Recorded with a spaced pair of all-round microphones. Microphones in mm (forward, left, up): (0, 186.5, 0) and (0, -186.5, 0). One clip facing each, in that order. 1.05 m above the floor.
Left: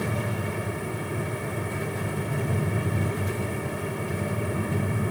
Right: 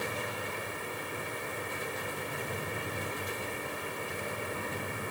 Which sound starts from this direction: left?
A fan, at 0.0 s.